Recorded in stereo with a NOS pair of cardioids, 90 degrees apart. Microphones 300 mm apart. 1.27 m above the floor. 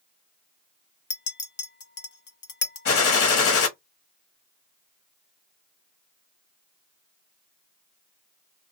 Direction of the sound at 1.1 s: 40° left.